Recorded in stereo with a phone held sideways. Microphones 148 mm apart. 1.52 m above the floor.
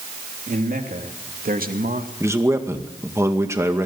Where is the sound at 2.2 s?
20° right (ahead or behind), 2 m.